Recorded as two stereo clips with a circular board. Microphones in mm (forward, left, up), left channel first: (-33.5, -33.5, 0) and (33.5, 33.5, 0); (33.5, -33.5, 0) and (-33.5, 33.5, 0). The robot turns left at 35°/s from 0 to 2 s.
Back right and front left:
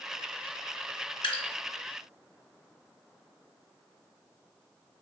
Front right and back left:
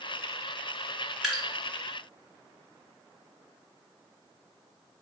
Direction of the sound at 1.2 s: 135° right.